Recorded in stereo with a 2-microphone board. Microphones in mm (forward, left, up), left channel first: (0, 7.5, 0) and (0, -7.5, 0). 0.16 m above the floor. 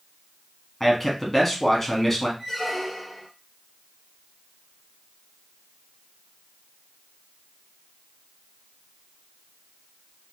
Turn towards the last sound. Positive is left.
turn(degrees=5)  # may be behind; listen again after turning